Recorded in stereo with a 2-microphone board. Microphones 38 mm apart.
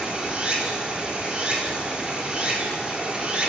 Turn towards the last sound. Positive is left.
turn(degrees=-25)  # may be behind; listen again after turning